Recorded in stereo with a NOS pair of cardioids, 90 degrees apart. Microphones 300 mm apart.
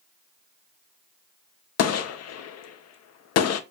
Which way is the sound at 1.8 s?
60° left.